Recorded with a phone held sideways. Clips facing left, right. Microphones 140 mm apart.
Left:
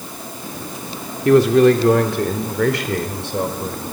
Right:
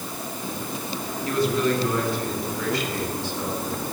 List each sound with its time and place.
1.2 s a man speaking: 80° left, 3 m; by 3.8 s 75° left (ahead or behind), 4 m